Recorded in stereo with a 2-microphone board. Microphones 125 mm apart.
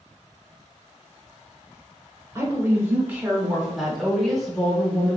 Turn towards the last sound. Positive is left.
turn(degrees=10)  # may be behind; listen again after turning